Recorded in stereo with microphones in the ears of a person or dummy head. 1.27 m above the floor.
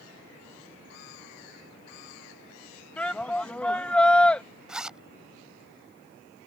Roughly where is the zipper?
Centre.